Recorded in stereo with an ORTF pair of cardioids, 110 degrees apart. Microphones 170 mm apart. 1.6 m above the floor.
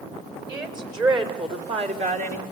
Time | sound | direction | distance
0.5 | a woman speaking | 25° right | 5.5 m